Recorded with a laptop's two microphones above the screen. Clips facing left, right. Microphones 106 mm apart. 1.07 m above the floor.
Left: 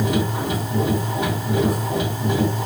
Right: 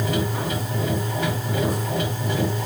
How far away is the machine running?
About 2 m.